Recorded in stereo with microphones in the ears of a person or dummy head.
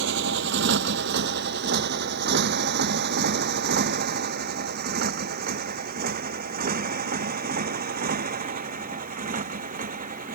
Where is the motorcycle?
65° right (ahead or behind); by 10.3 s 40° right (ahead or behind).